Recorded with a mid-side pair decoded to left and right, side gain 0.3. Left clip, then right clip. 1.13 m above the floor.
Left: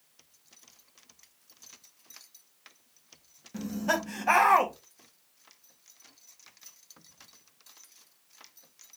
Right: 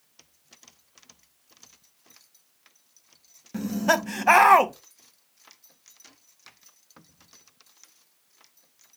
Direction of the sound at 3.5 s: 70° right.